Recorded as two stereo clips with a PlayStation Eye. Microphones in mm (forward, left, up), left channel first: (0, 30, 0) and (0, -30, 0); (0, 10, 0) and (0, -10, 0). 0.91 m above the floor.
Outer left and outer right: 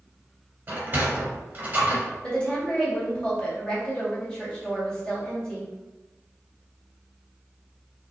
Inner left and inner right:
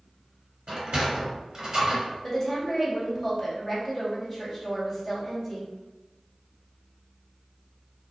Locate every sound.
0.7 s a sliding door: 30° right (ahead or behind), 1.8 m
2.2 s a woman speaking: 15° left (ahead or behind), 1.7 m